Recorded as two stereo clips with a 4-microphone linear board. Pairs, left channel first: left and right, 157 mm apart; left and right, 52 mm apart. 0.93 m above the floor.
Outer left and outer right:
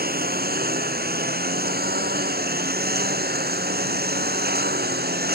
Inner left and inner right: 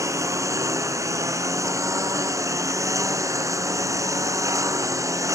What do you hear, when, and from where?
0.0 s a lawn mower: 75° right (ahead or behind); by 5.4 s 85° right